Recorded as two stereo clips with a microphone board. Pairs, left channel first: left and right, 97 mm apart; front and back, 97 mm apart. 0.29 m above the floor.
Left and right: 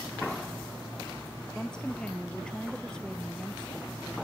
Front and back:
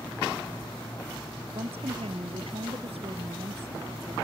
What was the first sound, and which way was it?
A woman speaking, 175° left.